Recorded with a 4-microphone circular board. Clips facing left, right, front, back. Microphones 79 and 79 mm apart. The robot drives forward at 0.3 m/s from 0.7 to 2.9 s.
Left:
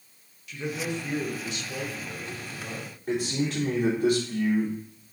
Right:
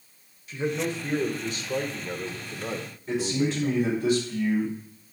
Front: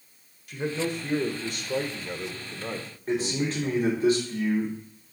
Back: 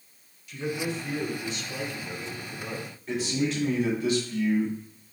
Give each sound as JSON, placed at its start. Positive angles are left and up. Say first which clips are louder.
{"t": 0.5, "sound": "a man speaking", "louder": "right 4 dB, front 2 dB", "azimuth_deg": -30, "distance_m": 1.3}
{"t": 3.1, "sound": "a man speaking", "louder": "right 2 dB, front 1 dB", "azimuth_deg": 55, "distance_m": 3.0}